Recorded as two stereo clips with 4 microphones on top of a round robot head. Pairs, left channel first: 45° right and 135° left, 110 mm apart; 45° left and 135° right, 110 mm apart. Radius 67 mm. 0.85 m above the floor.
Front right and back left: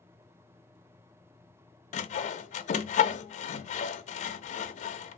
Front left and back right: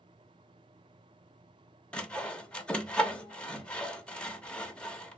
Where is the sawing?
35° right, 0.6 m.